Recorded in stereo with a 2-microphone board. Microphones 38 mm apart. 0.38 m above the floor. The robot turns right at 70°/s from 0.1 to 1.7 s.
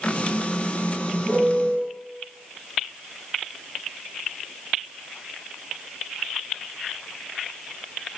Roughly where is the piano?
Behind right.